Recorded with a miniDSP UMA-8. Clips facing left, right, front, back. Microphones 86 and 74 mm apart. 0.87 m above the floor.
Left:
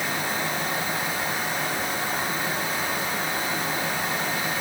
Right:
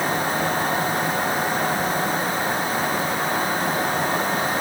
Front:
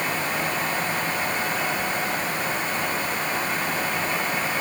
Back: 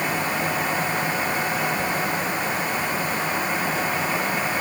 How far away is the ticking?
I don't hear ticking.